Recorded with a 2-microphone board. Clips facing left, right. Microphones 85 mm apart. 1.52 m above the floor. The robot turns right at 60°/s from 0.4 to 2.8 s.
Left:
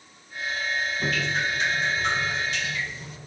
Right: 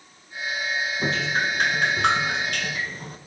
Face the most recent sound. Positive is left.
turn(degrees=-50)